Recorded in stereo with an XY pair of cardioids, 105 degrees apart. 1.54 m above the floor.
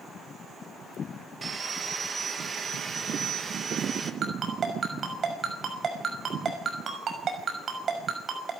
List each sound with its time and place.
1.4 s sawing: 35° right, 2.5 m
4.2 s a ringtone: 45° right, 6 m